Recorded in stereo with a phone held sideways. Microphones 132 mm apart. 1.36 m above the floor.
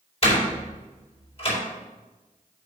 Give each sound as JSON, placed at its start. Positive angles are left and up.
{"t": 0.2, "sound": "a door slam", "side_deg": 45, "distance_m": 4.5}